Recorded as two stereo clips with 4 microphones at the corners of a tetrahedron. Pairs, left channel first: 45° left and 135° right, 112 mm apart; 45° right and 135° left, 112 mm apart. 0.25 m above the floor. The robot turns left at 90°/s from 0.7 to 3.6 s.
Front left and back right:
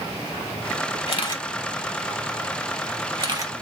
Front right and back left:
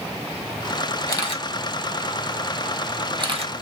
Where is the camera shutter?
20° left, 1.4 m; by 3.5 s 155° left, 1.4 m.